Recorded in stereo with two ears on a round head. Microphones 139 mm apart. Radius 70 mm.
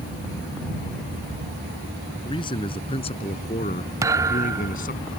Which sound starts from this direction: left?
A man speaking, at 2.2 s.